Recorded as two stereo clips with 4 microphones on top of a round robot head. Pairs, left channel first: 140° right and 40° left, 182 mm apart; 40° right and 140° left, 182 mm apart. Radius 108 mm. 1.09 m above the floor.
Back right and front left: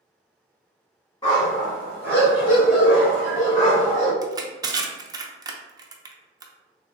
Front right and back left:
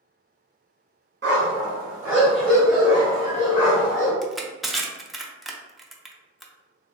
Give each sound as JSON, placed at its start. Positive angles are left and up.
{"t": 1.2, "sound": "a dog barking", "azimuth_deg": 160, "distance_m": 1.1}
{"t": 4.2, "sound": "crushing", "azimuth_deg": 50, "distance_m": 0.5}